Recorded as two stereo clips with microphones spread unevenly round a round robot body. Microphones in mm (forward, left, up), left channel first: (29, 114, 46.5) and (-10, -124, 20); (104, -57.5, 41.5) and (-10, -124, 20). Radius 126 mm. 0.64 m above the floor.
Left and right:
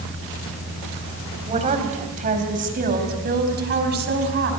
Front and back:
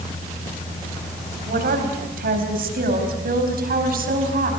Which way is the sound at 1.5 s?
165° right.